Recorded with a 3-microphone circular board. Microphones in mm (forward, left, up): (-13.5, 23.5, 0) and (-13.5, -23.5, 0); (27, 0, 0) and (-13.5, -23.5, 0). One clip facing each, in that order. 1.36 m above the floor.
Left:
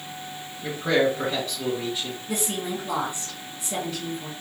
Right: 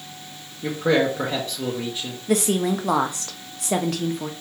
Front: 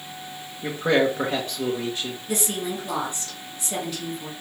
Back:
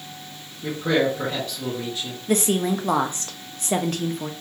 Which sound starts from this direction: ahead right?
A man speaking, at 0.6 s.